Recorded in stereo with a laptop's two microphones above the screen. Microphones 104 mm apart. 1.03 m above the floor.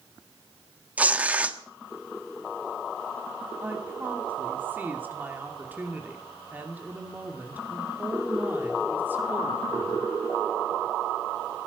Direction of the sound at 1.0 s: 15° right (ahead or behind).